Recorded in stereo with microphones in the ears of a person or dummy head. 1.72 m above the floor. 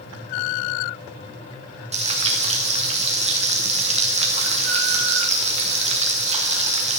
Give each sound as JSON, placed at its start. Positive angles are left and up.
{"t": 1.9, "sound": "frying", "side_deg": -30, "distance_m": 1.4}